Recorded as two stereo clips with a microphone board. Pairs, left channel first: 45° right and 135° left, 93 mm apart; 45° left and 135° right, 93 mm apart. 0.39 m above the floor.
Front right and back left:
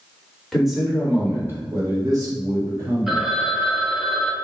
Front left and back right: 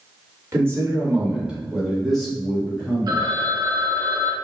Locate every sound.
0.5 s a man speaking: 135° right, 0.9 m; by 3.3 s 115° left, 1.5 m
3.1 s a phone ringing: 140° right, 0.5 m